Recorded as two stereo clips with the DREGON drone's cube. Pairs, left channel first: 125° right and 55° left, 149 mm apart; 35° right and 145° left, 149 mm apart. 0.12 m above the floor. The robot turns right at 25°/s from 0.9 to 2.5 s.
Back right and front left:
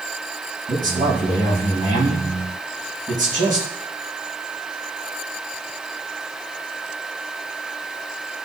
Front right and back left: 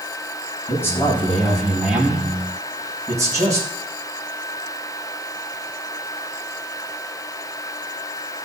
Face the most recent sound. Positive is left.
turn(degrees=80)